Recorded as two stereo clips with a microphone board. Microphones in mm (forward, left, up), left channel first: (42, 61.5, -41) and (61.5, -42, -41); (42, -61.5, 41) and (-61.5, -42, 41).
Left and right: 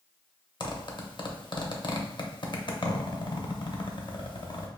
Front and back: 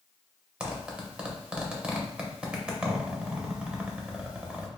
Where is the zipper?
95° left, 0.6 m.